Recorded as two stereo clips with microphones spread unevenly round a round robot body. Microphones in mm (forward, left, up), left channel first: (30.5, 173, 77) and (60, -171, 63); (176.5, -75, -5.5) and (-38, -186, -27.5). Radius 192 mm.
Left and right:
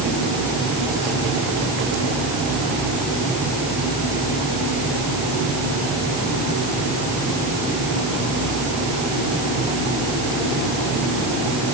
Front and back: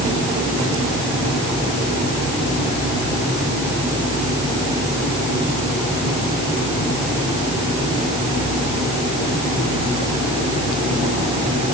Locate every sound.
Only background noise.